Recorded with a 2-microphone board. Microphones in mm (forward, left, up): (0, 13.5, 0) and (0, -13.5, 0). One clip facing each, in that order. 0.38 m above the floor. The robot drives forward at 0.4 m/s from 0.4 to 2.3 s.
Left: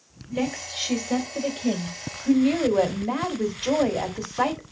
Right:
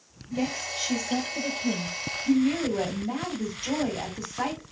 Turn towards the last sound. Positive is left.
turn(degrees=50)  # may be behind; listen again after turning